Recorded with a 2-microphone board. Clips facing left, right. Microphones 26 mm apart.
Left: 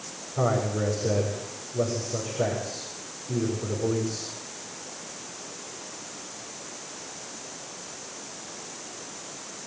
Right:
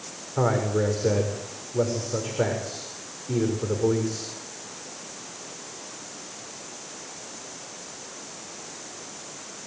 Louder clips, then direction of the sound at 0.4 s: Right 2 dB; 85° right.